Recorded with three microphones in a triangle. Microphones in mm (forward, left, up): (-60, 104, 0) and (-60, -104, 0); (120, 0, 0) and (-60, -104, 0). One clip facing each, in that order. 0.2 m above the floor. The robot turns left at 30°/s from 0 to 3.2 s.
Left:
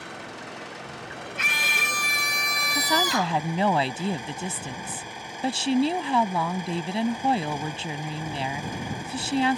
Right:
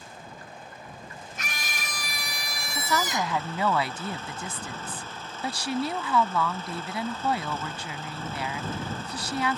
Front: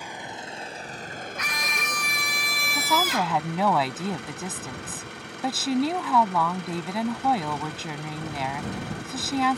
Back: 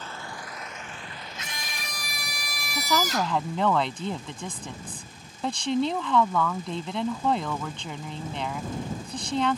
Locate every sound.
0.0 s an engine running: 110° left; by 9.6 s 15° left
1.4 s a scream: 95° right; by 3.4 s 150° right
2.7 s a woman speaking: 120° left; by 9.6 s 105° left